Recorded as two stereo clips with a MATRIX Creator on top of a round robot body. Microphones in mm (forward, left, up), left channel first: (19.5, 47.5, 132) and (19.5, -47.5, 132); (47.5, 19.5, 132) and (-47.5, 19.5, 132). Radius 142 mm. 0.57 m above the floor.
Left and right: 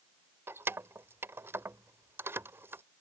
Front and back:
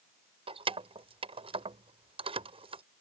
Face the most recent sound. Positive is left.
turn(degrees=-155)